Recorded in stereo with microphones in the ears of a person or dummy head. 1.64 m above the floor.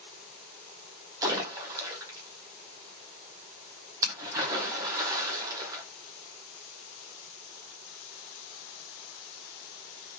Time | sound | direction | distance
1.2 | a splash | 15° right (ahead or behind) | 0.9 m